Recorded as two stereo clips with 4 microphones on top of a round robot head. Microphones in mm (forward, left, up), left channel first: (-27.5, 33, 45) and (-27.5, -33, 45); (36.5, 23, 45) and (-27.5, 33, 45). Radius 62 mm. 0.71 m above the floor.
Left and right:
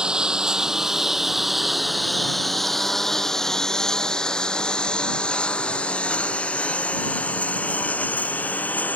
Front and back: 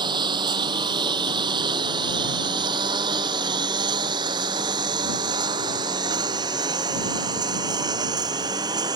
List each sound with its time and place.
0.0 s a lawn mower: 165° right; by 9.0 s 155° left